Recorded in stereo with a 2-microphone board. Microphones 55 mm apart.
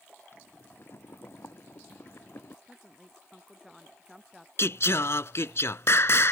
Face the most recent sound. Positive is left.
turn(degrees=55)  # may be behind; listen again after turning